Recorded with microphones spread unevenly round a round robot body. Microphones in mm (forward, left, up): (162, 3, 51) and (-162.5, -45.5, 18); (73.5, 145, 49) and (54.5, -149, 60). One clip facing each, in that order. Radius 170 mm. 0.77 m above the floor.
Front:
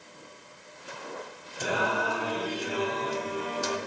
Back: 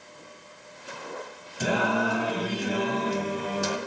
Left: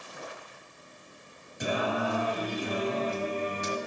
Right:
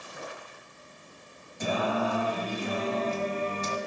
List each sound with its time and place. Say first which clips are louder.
1.6 s singing: back 4 dB, right 1 dB; 165° left, 3 m